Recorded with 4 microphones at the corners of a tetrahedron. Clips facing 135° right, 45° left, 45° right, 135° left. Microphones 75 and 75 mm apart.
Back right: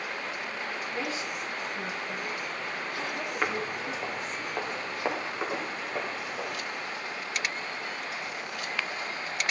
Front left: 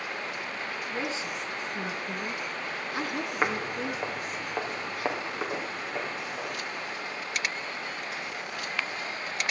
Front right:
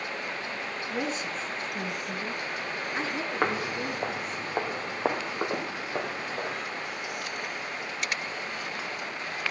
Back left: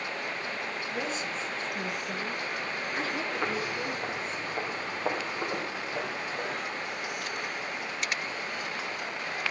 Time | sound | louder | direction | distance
0.9 | a woman speaking | front left 2 dB, front right 3 dB | 25° right | 3.5 m
3.4 | footsteps | front left 2 dB, front right 3 dB | 25° right | 1.6 m